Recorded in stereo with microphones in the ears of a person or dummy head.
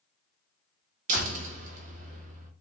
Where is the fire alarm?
No fire alarm in this recording.